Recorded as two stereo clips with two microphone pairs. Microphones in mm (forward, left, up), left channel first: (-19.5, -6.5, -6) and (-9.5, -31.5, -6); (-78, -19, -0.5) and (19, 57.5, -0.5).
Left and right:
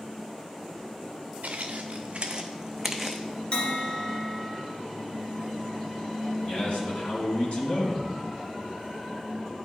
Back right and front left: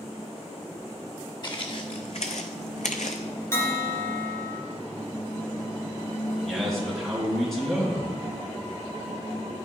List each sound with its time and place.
1.4 s footsteps: 90° right, 0.9 m; by 3.2 s 165° right, 0.8 m
3.5 s a bell: 155° left, 1.7 m
6.5 s a man speaking: 130° left, 3 m